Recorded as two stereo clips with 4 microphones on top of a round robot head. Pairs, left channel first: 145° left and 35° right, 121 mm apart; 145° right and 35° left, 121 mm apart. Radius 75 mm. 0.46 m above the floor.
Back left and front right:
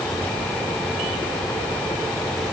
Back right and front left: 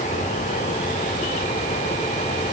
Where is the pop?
No pop in this recording.